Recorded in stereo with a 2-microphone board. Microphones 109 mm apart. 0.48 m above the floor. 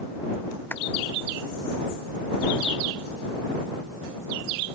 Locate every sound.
0.7 s a clap: 15° left (ahead or behind)